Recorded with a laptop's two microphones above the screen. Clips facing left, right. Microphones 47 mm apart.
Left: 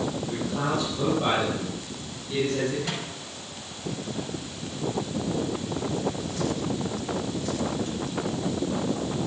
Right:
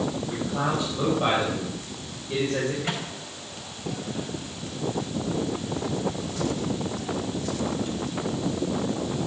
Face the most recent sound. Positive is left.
turn(degrees=-30)  # may be behind; listen again after turning